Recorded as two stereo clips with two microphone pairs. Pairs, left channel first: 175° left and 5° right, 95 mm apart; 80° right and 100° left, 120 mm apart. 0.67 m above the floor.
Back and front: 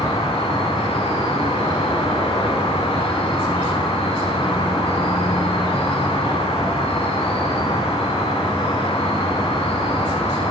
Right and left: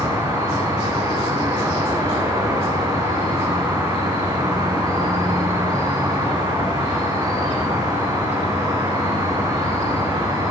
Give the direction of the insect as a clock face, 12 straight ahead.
7 o'clock.